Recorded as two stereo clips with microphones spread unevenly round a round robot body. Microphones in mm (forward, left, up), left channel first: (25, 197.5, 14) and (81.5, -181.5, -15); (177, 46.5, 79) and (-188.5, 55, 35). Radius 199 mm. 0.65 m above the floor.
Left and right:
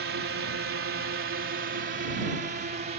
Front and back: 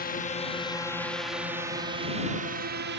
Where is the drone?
60° right; by 3.0 s 145° right.